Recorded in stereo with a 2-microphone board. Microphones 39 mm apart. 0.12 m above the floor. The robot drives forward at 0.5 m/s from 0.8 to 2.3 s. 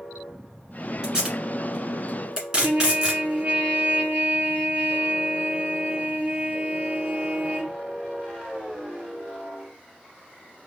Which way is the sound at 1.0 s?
20° right (ahead or behind).